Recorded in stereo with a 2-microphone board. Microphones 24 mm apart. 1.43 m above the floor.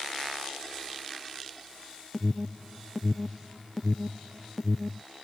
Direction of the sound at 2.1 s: 20° left (ahead or behind).